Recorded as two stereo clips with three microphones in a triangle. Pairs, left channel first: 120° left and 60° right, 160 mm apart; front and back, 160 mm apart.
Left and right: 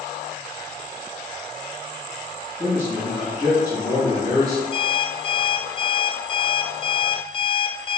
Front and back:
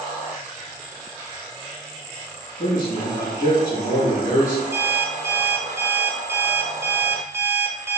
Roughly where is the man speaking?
Ahead.